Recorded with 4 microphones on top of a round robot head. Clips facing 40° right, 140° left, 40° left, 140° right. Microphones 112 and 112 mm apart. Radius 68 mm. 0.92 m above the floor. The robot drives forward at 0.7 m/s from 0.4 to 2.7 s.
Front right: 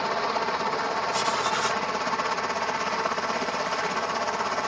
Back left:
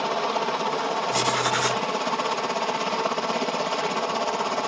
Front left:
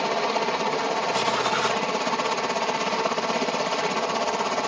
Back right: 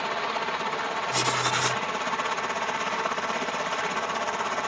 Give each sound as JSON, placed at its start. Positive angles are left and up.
{"t": 0.0, "sound": "a helicopter", "azimuth_deg": 70}
{"t": 1.1, "sound": "writing", "azimuth_deg": 175}